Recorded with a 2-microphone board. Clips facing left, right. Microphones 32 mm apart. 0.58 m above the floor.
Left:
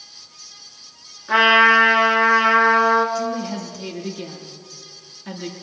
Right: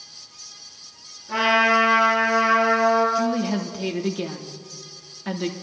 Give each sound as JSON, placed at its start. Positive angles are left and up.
{"t": 1.3, "sound": "a trumpet", "side_deg": 80, "distance_m": 5.0}
{"t": 3.1, "sound": "a woman speaking", "side_deg": -25, "distance_m": 1.1}